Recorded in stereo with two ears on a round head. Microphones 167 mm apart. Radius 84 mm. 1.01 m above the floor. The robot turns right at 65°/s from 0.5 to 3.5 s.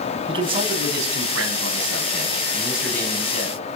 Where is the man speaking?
150° right, 8.5 m; by 3.6 s 45° left, 8.5 m.